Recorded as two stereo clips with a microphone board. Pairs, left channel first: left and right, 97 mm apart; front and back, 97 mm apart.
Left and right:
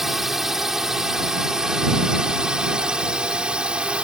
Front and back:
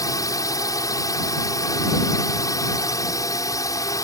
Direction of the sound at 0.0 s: 5° right.